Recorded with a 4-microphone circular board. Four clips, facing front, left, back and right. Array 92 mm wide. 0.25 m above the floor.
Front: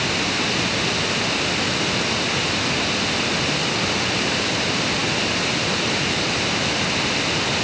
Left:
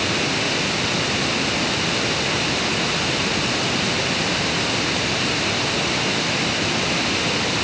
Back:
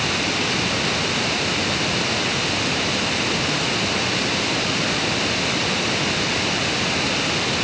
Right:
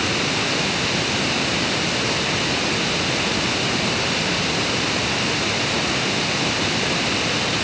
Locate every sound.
Only background noise.